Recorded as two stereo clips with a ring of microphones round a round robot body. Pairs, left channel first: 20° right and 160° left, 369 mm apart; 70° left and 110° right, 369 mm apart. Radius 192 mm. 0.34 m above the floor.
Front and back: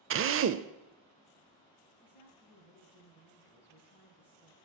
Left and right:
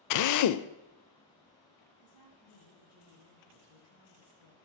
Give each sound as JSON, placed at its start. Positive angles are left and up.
{"t": 0.1, "sound": "a drill", "azimuth_deg": 105, "distance_m": 0.6}
{"t": 2.0, "sound": "a woman speaking", "azimuth_deg": 70, "distance_m": 7.5}